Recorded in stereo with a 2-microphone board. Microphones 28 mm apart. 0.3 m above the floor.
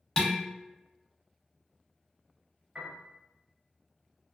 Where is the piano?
35° right (ahead or behind), 1.5 m.